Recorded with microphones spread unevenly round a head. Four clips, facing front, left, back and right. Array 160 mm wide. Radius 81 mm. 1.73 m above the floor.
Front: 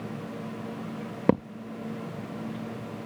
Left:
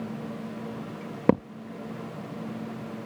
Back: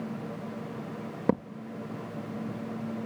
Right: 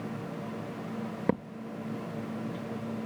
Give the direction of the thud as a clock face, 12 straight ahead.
10 o'clock.